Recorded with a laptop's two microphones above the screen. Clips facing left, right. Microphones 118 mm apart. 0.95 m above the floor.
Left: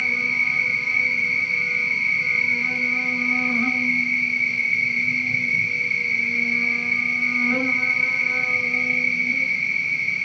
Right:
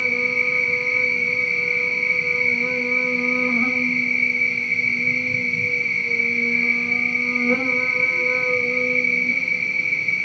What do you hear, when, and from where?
0.0 s an insect: 45° right (ahead or behind), 1.3 m